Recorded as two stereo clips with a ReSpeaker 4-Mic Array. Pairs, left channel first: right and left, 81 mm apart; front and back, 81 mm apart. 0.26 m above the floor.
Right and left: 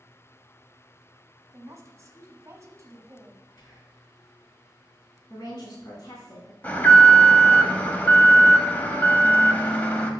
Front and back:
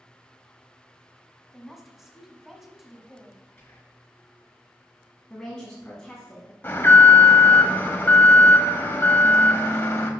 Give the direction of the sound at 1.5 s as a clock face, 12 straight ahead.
9 o'clock.